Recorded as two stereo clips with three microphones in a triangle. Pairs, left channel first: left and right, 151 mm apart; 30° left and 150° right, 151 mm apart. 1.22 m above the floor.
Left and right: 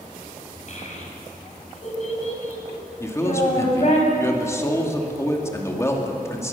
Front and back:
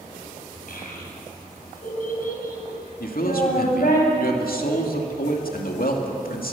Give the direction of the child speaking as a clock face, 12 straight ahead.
10 o'clock.